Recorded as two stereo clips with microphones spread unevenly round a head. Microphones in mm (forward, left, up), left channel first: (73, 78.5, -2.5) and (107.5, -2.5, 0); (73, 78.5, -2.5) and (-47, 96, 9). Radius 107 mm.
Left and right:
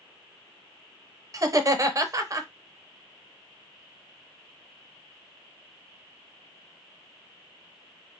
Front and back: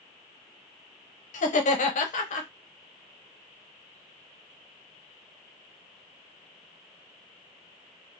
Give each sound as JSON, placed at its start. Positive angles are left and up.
{"t": 1.3, "sound": "laughter", "azimuth_deg": -15, "distance_m": 0.7}